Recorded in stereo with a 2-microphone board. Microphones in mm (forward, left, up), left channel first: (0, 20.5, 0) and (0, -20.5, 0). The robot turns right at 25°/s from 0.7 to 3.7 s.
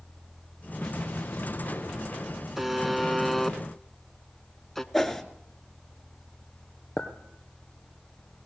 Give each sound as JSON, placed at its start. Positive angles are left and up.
{"t": 0.8, "sound": "an explosion", "azimuth_deg": 70, "distance_m": 2.5}
{"t": 2.6, "sound": "a buzzer", "side_deg": -5, "distance_m": 0.9}
{"t": 4.9, "sound": "a whoosh", "side_deg": 5, "distance_m": 1.8}
{"t": 7.0, "sound": "a clink", "side_deg": 25, "distance_m": 2.0}